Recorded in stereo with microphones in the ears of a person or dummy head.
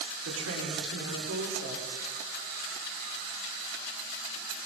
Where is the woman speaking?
80° right, 6 m.